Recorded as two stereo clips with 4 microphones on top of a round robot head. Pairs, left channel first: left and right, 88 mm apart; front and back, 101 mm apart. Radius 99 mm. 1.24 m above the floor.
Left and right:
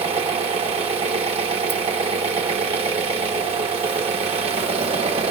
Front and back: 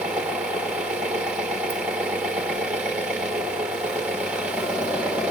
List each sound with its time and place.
0.0 s an engine running: 100° right, 1.0 m